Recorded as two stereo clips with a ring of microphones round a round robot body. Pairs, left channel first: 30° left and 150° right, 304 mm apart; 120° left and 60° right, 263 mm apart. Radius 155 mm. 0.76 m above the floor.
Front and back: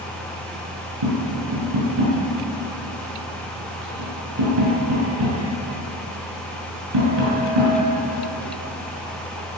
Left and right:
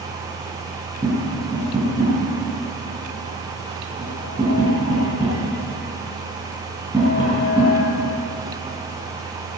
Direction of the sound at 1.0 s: 140° right.